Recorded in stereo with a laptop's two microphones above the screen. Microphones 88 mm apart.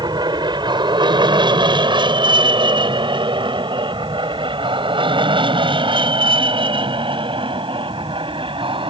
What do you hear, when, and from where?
0.0 s an aircraft: 55° right (ahead or behind); by 8.9 s 75° right (ahead or behind)